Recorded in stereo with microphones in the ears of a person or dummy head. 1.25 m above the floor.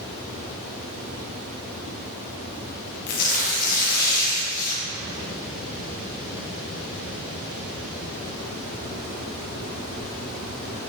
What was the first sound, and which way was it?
Tearing paper, 50° left (ahead or behind).